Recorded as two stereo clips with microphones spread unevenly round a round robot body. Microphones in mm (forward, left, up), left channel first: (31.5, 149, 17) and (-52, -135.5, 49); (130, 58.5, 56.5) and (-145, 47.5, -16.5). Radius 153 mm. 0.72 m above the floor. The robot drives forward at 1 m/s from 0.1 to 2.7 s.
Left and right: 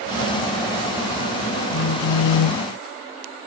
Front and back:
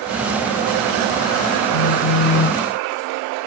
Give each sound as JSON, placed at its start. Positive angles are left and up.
{"t": 1.7, "sound": "a phone buzzing", "azimuth_deg": 30}